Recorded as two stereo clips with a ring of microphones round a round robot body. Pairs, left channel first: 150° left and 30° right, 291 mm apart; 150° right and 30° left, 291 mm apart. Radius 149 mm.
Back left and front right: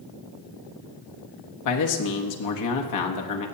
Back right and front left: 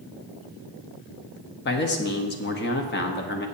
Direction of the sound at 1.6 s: 160° left.